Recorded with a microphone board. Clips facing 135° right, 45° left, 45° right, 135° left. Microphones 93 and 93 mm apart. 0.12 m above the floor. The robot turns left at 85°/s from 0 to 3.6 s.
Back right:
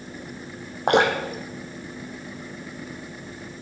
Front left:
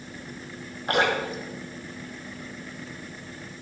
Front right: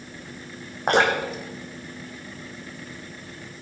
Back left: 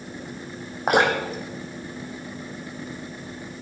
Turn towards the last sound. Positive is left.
turn(degrees=-10)